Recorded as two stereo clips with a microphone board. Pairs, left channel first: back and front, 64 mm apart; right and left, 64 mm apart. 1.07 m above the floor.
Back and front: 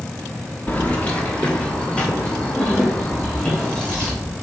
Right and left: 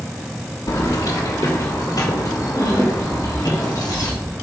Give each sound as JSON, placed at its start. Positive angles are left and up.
{"t": 0.7, "sound": "keys jangling", "azimuth_deg": -115, "distance_m": 1.1}